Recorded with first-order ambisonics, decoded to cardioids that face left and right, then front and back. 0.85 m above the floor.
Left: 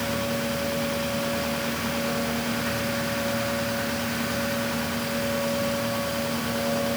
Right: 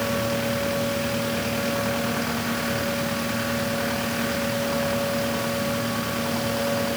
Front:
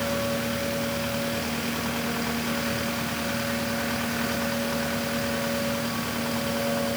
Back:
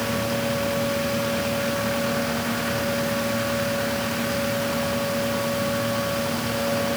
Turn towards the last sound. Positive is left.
No sound to turn to.